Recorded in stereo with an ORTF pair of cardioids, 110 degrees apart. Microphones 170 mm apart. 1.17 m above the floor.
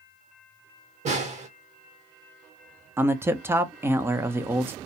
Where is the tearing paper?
No tearing paper in this recording.